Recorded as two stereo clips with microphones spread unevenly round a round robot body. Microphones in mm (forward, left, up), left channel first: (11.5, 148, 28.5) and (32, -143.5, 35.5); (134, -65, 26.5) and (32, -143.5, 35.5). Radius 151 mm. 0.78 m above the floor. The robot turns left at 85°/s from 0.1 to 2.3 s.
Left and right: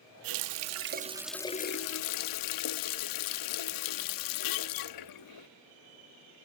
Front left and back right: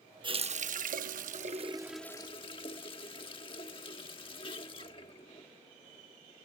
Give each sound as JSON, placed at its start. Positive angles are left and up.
{"t": 0.2, "sound": "a running tap", "azimuth_deg": -85}